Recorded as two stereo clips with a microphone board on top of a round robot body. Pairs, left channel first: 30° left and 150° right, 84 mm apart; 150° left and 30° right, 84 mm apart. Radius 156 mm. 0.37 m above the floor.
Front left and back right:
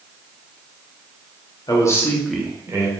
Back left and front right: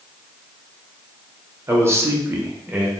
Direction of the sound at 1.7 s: 20° left.